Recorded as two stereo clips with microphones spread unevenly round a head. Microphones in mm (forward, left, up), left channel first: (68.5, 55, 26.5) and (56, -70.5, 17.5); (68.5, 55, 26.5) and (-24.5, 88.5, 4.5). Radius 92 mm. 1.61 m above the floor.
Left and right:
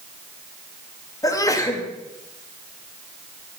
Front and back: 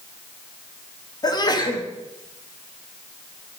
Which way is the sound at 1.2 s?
25° left.